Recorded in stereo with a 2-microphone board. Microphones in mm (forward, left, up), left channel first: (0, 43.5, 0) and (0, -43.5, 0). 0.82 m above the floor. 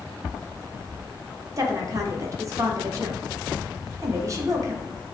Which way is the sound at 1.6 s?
40° right (ahead or behind).